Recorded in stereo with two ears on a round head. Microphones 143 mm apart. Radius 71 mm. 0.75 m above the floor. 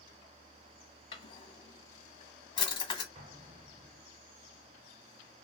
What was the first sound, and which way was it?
A drawer, 30° left (ahead or behind).